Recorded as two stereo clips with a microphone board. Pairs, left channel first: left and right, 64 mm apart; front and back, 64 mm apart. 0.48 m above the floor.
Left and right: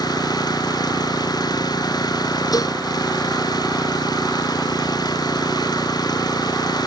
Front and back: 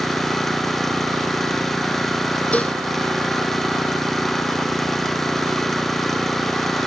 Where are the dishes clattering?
70° left.